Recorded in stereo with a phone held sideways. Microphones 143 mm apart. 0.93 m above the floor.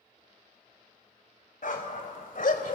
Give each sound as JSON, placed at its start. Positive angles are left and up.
{"t": 1.6, "sound": "a dog barking", "side_deg": 75, "distance_m": 2.5}